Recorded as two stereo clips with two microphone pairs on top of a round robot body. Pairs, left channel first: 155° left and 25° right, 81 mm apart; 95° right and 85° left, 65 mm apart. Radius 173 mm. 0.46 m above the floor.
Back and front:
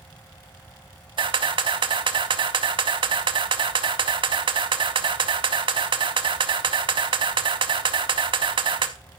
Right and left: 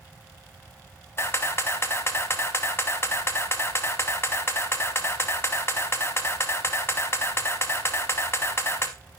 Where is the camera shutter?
45° right, 0.5 m.